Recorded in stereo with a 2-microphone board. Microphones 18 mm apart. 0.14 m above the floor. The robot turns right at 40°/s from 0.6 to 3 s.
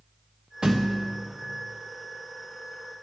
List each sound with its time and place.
0.6 s a thud: 45° right (ahead or behind), 1.2 m; by 1.3 s 15° right (ahead or behind), 1.2 m